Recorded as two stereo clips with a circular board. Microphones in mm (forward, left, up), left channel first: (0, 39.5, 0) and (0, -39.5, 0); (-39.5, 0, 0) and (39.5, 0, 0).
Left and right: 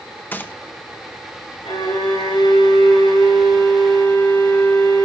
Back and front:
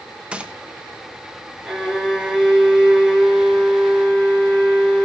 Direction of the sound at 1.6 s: 80° left.